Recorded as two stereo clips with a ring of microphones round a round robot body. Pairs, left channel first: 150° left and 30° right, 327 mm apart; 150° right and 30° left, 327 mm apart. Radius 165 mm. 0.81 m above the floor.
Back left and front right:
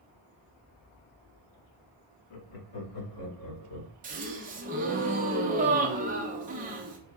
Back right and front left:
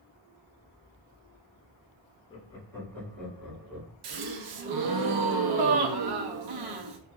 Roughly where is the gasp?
Ahead left.